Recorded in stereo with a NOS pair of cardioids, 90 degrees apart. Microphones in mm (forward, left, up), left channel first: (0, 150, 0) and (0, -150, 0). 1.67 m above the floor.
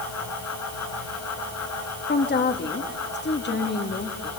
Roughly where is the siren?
No siren in this recording.